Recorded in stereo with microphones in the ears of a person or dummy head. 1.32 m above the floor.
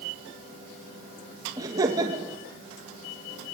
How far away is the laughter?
About 2 m.